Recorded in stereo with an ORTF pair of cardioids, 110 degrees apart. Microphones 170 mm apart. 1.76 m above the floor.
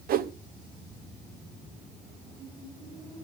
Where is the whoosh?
65° right, 1.1 m.